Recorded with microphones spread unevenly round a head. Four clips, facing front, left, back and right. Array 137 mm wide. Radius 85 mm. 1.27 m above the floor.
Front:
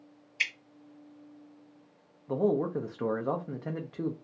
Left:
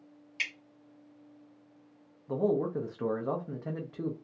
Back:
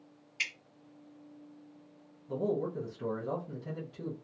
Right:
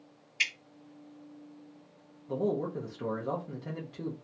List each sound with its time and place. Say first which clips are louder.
0.4 s dripping: right 3 dB, front 5 dB; 105° left, 1.3 m
2.3 s a man speaking: left 2 dB, front 5 dB; straight ahead, 0.5 m